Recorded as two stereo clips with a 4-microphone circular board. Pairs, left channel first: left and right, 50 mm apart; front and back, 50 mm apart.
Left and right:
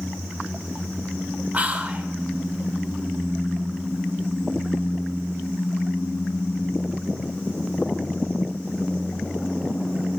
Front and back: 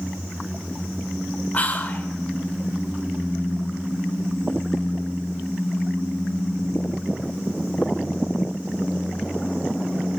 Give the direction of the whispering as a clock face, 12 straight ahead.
1 o'clock.